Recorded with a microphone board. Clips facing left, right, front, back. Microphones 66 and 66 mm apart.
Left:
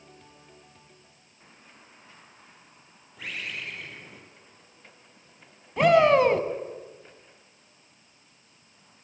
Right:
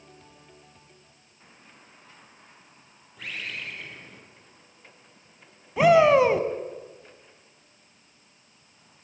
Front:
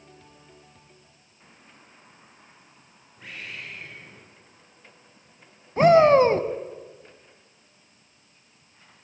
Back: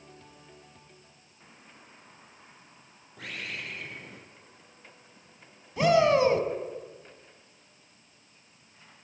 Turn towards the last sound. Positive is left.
turn(degrees=-5)